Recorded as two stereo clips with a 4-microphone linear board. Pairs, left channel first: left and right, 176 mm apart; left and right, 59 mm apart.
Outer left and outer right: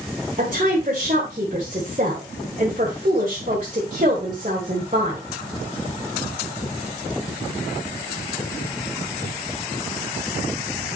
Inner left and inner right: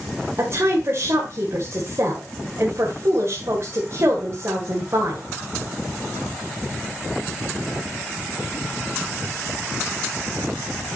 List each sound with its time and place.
0.4 s a woman speaking: 45° right (ahead or behind), 1.7 m